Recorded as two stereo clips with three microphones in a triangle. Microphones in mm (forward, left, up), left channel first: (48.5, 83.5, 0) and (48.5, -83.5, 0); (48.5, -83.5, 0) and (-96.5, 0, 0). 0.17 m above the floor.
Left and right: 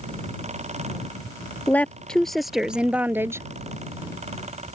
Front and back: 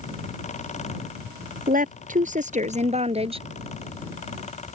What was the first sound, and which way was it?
A woman speaking, 170° left.